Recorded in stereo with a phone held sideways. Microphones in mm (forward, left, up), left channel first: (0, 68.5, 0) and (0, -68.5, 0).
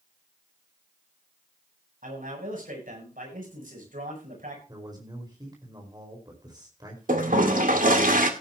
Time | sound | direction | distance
2.0 | a man speaking | 80° right | 8.5 m
4.7 | a man speaking | 30° right (ahead or behind) | 4.5 m
7.1 | a toilet flushing | 80° right | 2 m